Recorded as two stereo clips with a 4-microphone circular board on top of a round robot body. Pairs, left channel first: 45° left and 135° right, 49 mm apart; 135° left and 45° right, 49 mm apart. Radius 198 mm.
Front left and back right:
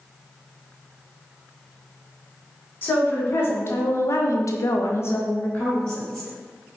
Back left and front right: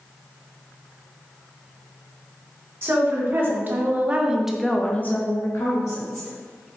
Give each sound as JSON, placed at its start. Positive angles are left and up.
{"t": 2.8, "sound": "a woman speaking", "azimuth_deg": -10, "distance_m": 1.3}